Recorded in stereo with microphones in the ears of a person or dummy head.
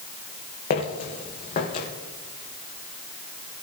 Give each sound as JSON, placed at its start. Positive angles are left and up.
{"t": 0.7, "sound": "footsteps", "side_deg": 50, "distance_m": 3.0}